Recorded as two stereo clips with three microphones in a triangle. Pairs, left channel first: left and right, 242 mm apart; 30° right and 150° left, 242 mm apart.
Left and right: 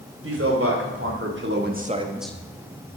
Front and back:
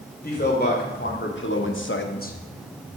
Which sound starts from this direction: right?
A man speaking, at 0.2 s.